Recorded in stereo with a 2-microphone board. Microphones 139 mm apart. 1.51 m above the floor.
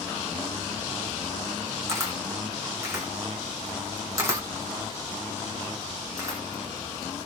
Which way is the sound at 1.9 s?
20° right (ahead or behind).